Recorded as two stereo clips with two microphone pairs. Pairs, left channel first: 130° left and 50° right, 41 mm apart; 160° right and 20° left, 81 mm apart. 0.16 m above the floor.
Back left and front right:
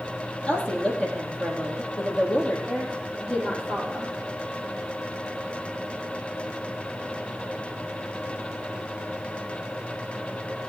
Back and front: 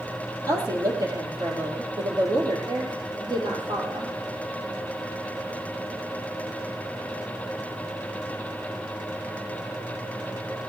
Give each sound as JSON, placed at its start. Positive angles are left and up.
{"t": 0.5, "sound": "a woman speaking", "azimuth_deg": 65, "distance_m": 4.0}
{"t": 2.7, "sound": "a woman speaking", "azimuth_deg": 50, "distance_m": 6.0}